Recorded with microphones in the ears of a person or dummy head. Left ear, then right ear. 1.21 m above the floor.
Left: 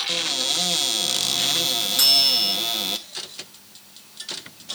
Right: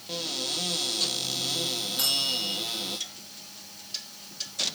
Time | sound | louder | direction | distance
0.1 | a cupboard door | left 5 dB | 45° left (ahead or behind) | 1.2 m
2.0 | a bell | left 10 dB | 50° left (ahead or behind) | 5.5 m